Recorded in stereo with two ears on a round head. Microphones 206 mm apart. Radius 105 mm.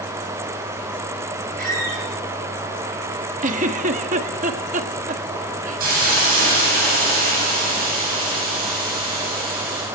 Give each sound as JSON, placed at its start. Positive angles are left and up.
{"t": 1.6, "sound": "a squeak", "side_deg": -35, "distance_m": 7.0}
{"t": 3.4, "sound": "a giggle", "side_deg": -35, "distance_m": 1.2}
{"t": 5.8, "sound": "a hiss", "side_deg": -40, "distance_m": 9.5}